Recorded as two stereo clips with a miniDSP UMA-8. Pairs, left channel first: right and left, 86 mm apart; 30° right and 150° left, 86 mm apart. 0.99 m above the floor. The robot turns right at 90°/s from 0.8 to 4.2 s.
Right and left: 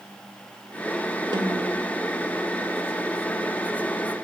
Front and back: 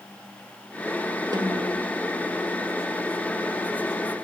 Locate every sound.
1.3 s a snare drum: 115° left, 1.6 m; by 1.7 s 150° left, 1.6 m